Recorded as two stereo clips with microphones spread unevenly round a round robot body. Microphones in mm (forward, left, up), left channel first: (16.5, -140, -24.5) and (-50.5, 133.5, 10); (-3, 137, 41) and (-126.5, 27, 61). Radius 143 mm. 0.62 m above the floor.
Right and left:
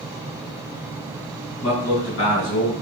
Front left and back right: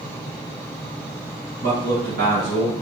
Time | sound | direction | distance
1.6 | a man speaking | 105° right | 4.5 m